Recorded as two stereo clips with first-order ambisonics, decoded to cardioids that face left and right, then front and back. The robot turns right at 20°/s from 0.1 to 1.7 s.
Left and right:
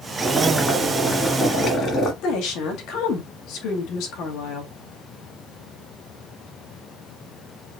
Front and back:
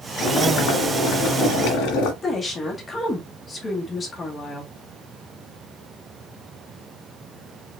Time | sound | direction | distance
0.2 | boiling | straight ahead | 1.4 m
2.2 | a woman speaking | 70° left | 1.7 m